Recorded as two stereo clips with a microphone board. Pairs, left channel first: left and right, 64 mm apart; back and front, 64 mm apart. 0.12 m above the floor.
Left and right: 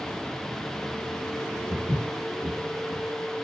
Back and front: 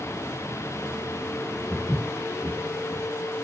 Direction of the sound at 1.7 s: 90° right.